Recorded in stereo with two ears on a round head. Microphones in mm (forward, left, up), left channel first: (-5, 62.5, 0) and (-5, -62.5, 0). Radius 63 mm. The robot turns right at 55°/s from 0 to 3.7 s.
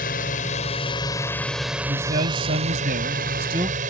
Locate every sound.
0.0 s a drone: 90° left; by 3.9 s 65° right
1.9 s a man speaking: 130° right; by 3.8 s 30° right